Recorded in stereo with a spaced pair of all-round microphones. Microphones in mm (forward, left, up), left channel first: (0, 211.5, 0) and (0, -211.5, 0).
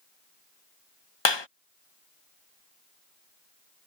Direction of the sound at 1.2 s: 80° left.